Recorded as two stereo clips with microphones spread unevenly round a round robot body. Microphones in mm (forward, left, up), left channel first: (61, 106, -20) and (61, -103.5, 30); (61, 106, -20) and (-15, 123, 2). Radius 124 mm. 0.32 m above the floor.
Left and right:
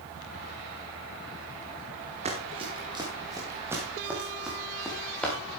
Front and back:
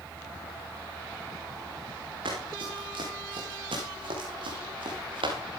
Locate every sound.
2.2 s running footsteps: 155° right, 4.5 m; by 5.3 s 175° left, 5 m